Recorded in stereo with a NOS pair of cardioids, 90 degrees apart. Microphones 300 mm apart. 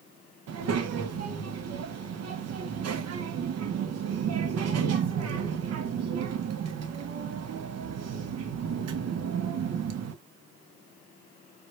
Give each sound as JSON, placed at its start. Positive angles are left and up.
{"t": 0.5, "sound": "a child speaking", "azimuth_deg": -65, "distance_m": 1.0}